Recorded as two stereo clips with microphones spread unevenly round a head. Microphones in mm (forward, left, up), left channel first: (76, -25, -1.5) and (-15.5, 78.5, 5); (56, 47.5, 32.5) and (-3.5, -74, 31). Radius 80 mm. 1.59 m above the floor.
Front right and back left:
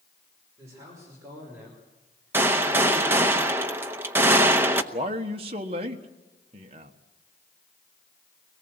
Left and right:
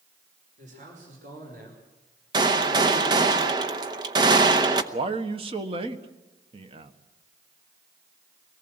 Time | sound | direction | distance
0.6 | a man speaking | 160° right | 6 m
2.3 | a gunshot | 165° right | 0.8 m
4.9 | a man speaking | 170° right | 1.5 m